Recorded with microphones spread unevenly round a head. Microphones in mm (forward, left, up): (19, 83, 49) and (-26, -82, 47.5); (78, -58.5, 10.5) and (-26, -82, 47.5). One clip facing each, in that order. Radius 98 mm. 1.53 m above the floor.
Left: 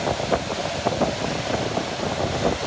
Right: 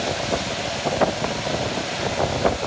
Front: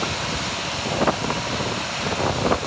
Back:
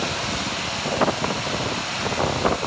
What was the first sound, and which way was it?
Only background noise.